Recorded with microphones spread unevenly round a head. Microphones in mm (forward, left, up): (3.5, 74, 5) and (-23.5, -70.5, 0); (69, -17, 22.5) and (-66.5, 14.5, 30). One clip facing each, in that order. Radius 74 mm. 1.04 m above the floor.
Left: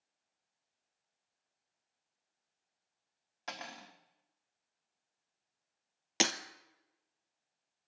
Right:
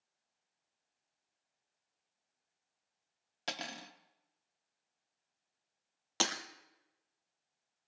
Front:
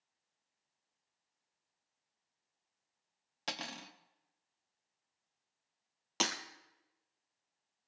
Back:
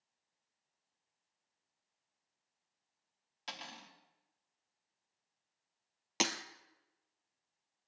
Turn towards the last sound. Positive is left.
turn(degrees=105)